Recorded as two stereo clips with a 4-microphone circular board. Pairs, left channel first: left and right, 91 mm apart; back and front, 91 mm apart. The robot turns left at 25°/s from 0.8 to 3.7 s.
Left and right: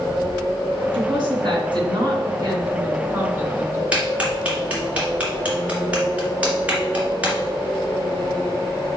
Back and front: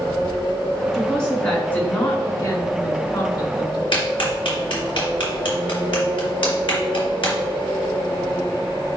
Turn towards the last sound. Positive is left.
turn(degrees=-165)